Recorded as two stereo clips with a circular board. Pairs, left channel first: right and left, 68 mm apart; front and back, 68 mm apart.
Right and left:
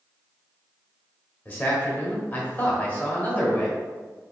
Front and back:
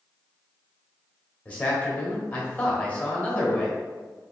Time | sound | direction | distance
1.4 | a man speaking | 50° right | 1.2 m